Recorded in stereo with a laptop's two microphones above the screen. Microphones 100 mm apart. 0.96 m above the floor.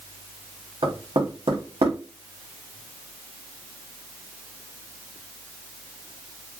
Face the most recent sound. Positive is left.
turn(degrees=-80)